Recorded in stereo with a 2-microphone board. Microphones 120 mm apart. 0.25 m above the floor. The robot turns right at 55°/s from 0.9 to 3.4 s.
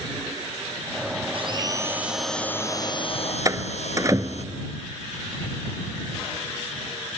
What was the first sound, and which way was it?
A blender, 50° right.